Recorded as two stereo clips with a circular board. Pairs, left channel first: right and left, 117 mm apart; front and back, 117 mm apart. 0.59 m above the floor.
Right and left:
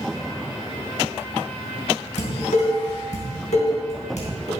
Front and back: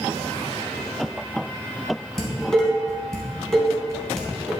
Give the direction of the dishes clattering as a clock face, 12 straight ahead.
3 o'clock.